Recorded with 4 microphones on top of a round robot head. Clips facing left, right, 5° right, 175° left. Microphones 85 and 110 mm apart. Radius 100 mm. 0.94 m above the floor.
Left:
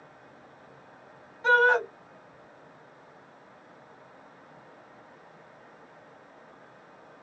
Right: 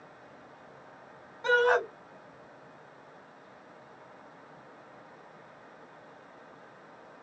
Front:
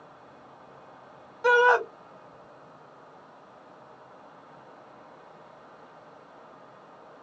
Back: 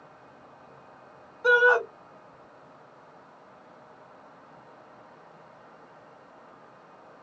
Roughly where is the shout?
Ahead.